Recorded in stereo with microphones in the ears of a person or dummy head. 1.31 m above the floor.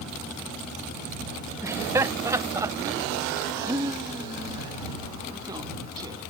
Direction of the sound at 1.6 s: 15° right (ahead or behind).